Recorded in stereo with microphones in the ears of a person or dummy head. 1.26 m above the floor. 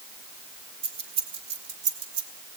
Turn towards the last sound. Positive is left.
turn(degrees=-75)  # may be behind; listen again after turning